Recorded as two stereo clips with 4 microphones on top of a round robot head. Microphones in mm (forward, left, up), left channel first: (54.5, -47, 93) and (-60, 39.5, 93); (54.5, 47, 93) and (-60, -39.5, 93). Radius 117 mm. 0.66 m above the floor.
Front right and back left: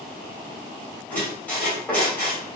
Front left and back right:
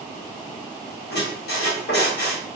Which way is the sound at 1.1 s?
45° left.